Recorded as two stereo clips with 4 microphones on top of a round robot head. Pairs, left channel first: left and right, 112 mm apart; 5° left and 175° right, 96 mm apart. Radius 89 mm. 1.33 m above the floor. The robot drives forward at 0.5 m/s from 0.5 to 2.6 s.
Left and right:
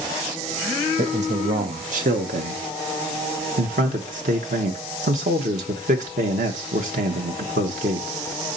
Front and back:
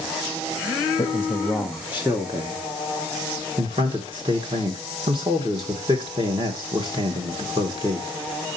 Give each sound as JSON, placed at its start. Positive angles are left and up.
{"t": 1.0, "sound": "a man speaking", "azimuth_deg": -60, "distance_m": 0.9}